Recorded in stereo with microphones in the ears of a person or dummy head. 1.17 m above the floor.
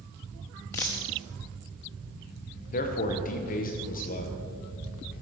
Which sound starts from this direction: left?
A man speaking, at 2.7 s.